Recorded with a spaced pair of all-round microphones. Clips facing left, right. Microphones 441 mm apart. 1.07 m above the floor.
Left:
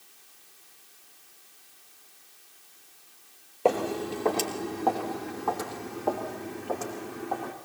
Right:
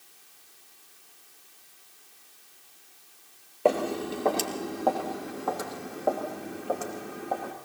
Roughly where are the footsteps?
Centre.